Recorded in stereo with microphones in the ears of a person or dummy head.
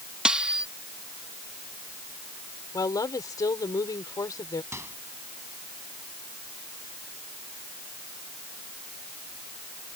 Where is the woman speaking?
20° left (ahead or behind).